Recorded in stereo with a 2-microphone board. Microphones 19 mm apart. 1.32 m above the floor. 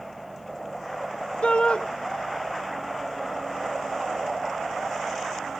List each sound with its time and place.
1.4 s a shout: 60° left (ahead or behind), 1.0 m